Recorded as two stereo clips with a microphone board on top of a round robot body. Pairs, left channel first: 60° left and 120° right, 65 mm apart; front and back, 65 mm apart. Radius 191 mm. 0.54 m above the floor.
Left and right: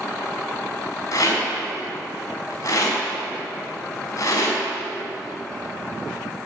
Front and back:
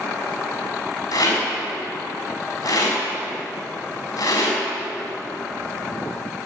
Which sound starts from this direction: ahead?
A rattle, at 1.1 s.